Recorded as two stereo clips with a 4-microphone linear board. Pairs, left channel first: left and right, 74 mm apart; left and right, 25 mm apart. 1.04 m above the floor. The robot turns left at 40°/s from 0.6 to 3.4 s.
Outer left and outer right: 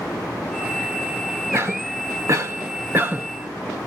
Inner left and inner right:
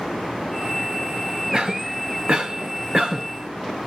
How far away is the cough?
About 0.8 m.